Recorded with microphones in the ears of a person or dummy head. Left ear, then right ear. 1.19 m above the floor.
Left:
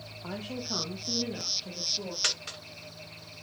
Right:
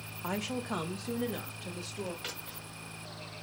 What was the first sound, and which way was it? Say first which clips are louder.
A woman speaking: right 2 dB; 65° right (ahead or behind).